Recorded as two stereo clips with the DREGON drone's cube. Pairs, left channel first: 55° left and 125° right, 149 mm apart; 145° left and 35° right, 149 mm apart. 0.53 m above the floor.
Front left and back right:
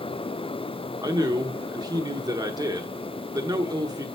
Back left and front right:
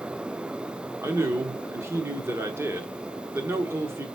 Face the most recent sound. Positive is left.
turn(degrees=-90)